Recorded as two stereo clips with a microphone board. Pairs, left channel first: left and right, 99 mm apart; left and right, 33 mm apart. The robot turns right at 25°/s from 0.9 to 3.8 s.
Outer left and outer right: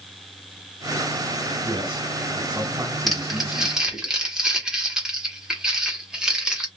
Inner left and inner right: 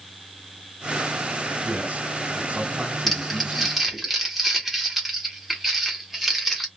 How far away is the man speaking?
About 2 m.